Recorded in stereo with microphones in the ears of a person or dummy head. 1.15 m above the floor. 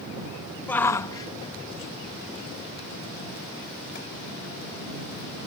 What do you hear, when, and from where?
0.7 s a shout: 10° left (ahead or behind); by 4.0 s 65° left (ahead or behind)